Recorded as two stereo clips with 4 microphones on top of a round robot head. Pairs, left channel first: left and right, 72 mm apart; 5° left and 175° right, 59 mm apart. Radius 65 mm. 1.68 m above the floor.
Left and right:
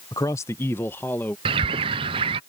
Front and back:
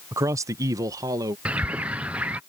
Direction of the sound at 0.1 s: 145° left.